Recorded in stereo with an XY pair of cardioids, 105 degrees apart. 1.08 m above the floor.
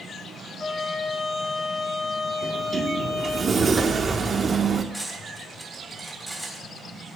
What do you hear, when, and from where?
0.6 s a trumpet: 35° left, 3.5 m
2.4 s a sliding door: 40° right, 1.3 m
4.9 s cutlery clinking: 5° right, 4 m